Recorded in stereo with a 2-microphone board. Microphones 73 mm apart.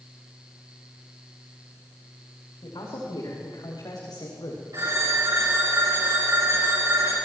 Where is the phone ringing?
55° right (ahead or behind), 8.5 m.